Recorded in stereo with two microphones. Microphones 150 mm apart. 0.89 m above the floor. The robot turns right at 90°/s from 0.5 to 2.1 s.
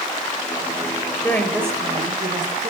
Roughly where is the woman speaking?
Behind.